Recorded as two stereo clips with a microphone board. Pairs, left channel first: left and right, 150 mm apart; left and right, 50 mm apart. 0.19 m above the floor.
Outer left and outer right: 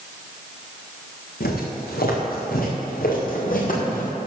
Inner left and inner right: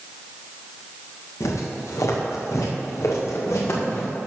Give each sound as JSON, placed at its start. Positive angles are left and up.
{"t": 1.4, "sound": "footsteps", "side_deg": 85, "distance_m": 4.0}